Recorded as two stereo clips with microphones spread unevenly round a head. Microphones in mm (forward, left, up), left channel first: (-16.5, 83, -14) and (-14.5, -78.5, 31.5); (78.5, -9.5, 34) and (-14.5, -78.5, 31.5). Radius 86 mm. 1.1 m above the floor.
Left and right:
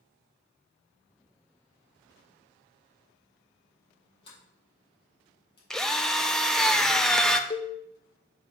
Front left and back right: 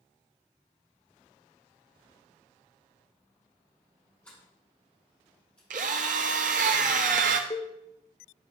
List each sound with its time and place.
4.2 s a sliding door: 120° left, 4.5 m
5.7 s a drill: 170° right, 0.5 m
7.5 s a cowbell: 30° left, 0.6 m